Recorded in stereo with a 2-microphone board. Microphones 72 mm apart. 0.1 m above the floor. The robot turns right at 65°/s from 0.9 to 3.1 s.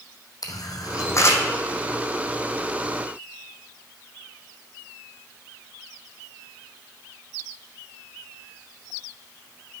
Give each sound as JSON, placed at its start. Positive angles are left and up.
{"t": 0.4, "sound": "a camera shutter", "side_deg": 65, "distance_m": 0.8}